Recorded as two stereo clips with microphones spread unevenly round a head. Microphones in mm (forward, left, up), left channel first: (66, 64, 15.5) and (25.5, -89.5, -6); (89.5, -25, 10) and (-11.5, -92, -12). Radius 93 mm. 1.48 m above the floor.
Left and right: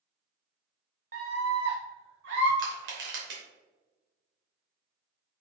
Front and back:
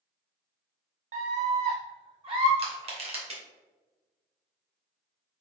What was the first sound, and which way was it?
A scream, 150° right.